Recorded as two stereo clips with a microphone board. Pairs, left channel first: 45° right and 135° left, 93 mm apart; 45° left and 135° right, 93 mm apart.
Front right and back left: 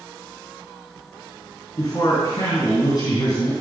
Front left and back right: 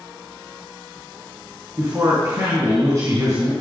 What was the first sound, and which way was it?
A man speaking, 85° right.